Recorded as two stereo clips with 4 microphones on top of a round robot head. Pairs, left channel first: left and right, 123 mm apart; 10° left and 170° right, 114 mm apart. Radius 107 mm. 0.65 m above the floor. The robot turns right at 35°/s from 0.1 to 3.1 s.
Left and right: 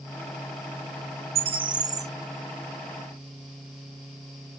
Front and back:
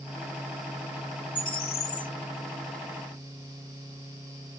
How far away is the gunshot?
I don't hear a gunshot.